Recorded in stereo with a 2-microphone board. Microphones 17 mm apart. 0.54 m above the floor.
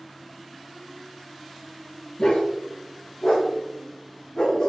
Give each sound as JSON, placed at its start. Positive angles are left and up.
{"t": 2.2, "sound": "a dog barking", "side_deg": 75, "distance_m": 5.0}